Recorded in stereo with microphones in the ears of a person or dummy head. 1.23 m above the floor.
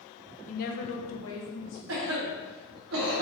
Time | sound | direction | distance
0.5 | a woman speaking | 35° left (ahead or behind) | 0.7 m
1.9 | a cough | 80° right | 0.8 m